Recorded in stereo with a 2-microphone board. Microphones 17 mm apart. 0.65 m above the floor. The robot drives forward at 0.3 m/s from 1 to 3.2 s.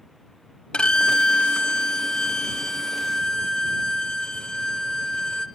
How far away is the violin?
About 0.8 m.